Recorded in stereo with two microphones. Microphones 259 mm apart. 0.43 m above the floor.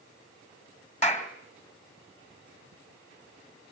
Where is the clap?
25° left (ahead or behind), 2 m.